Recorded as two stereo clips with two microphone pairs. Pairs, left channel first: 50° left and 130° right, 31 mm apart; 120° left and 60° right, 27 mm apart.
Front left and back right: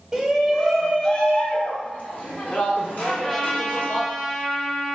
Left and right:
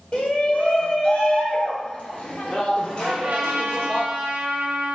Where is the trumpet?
30° right, 1.3 m.